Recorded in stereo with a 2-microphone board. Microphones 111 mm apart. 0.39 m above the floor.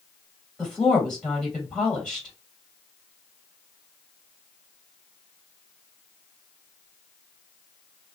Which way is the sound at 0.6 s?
5° left (ahead or behind).